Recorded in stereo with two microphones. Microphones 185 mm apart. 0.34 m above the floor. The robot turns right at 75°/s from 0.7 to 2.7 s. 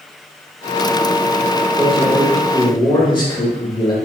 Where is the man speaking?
10° right, 1.0 m; by 4.0 s 60° left, 1.0 m.